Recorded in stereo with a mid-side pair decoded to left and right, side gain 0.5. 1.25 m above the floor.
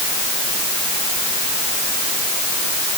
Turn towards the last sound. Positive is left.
No sound to turn to.